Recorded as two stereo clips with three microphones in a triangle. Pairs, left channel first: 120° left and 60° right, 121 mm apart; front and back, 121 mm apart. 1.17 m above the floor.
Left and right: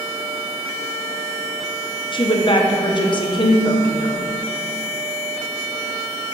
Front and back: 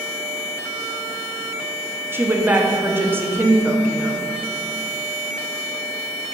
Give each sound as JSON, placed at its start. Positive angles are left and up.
{"t": 2.1, "sound": "a woman speaking", "azimuth_deg": 115, "distance_m": 0.7}